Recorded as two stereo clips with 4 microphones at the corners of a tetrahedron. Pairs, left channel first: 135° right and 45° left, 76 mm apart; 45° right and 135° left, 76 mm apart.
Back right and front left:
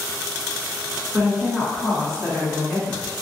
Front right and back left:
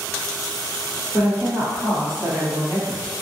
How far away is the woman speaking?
About 1.3 m.